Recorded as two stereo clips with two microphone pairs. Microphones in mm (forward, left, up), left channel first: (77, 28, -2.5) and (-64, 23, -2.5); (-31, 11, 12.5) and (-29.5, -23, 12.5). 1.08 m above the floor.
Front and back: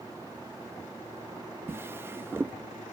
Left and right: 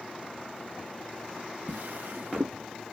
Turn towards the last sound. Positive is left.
turn(degrees=-105)